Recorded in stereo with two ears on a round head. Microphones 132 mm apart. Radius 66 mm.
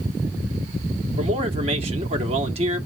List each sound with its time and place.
1.2 s a man speaking: 40° right (ahead or behind), 1.7 m